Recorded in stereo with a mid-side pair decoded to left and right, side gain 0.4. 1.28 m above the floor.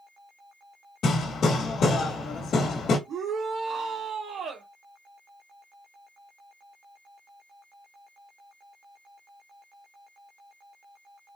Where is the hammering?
70° left, 2 m.